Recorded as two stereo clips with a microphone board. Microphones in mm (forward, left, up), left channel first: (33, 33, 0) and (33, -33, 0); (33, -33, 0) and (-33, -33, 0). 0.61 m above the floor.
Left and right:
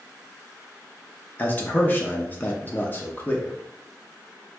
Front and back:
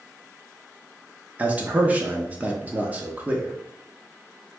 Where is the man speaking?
130° left, 0.7 m.